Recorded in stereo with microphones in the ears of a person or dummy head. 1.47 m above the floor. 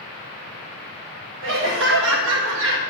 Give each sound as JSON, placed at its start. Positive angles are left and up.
{"t": 1.4, "sound": "laughter", "side_deg": -75, "distance_m": 1.8}